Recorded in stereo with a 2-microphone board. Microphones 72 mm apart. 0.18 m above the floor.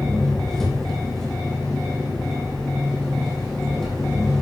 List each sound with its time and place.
0.0 s an engine running: 5° left (ahead or behind), 2.5 m